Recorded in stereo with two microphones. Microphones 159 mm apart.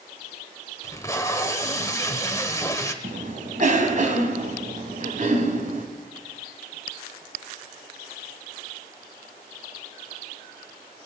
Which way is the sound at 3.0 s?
55° right (ahead or behind).